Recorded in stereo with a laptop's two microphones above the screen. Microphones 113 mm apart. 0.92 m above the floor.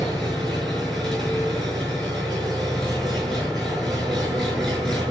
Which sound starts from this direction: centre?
An engine running, at 0.0 s.